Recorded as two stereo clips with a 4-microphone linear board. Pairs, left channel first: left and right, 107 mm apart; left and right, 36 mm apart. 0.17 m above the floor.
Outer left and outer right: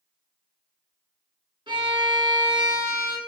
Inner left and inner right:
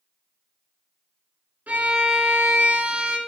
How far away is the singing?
I don't hear singing.